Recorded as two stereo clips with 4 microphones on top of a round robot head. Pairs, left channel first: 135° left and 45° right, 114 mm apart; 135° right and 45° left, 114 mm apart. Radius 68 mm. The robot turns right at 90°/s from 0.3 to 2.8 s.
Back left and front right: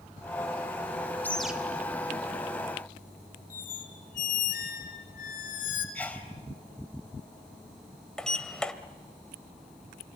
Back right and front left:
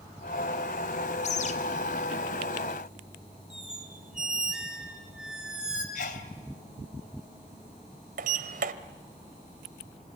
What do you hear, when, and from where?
1.2 s a bird: 150° right, 2.5 m; by 1.6 s 125° right, 2.5 m
3.5 s a squeak: 130° left, 3.5 m
6.0 s a sneeze: 145° right, 3.5 m
8.2 s a sliding door: 50° left, 1.4 m